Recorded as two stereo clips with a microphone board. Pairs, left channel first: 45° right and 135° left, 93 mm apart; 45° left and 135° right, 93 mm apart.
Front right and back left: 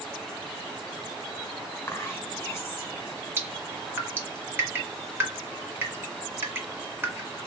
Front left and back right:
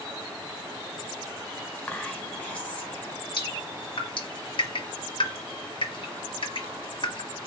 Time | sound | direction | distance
1.9 | whispering | 20° right | 1.5 m
3.4 | dripping | 70° left | 1.7 m